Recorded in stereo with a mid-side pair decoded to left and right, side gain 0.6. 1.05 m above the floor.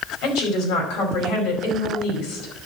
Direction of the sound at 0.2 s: 70° left.